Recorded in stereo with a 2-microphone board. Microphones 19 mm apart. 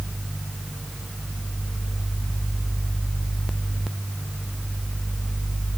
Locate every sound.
Only background noise.